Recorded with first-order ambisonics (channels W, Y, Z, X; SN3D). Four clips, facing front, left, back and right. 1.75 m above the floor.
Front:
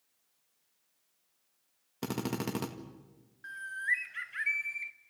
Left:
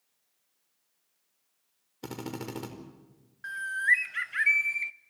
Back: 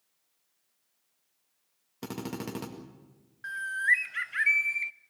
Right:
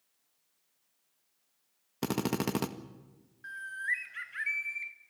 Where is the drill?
80° right, 1.8 m.